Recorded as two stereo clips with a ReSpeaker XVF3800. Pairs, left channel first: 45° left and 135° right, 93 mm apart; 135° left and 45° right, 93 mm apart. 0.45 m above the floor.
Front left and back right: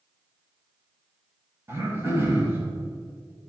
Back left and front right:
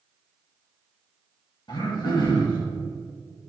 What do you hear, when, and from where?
1.7 s throat clearing: 165° left, 1.9 m